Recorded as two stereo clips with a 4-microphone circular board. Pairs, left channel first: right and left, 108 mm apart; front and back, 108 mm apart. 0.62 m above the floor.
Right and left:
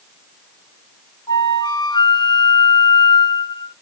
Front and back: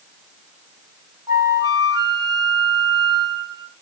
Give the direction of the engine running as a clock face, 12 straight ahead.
I don't hear an engine running.